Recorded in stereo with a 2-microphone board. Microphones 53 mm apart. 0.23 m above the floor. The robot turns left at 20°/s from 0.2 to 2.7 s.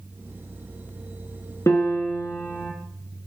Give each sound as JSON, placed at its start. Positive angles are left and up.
{"t": 1.7, "sound": "a piano", "side_deg": 70, "distance_m": 0.9}